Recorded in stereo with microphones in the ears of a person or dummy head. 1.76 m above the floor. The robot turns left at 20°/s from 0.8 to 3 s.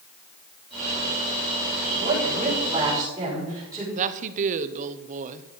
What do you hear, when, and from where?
2.0 s a woman speaking: 40° right (ahead or behind), 6.5 m; by 3.9 s 20° right (ahead or behind), 6.5 m
4.0 s a woman speaking: 45° right (ahead or behind), 1.0 m